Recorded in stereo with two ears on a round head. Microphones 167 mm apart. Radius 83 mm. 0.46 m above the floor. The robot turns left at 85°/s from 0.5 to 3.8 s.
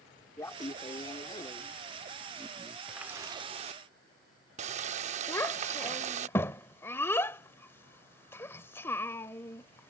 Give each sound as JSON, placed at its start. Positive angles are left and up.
{"t": 0.4, "sound": "laughter", "side_deg": 15}
{"t": 2.9, "sound": "a running tap", "azimuth_deg": 0}
{"t": 5.3, "sound": "a child speaking", "side_deg": 15}